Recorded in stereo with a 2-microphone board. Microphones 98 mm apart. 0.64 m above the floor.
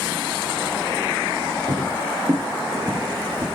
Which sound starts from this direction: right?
Footsteps, at 1.7 s.